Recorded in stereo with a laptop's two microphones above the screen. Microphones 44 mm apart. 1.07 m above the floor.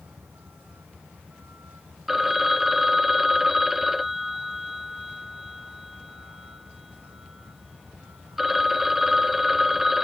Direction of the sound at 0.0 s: 90° right.